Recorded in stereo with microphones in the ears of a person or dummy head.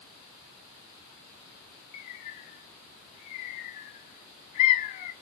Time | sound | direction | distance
1.9 | a bird | 40° left (ahead or behind) | 1.5 m